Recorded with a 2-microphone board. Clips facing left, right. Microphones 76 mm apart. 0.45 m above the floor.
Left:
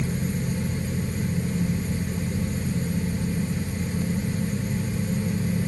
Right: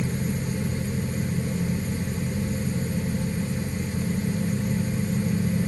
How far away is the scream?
No scream in this recording.